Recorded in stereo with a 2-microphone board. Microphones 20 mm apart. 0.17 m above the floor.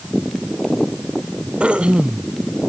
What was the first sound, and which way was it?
Throat clearing, 75° right (ahead or behind).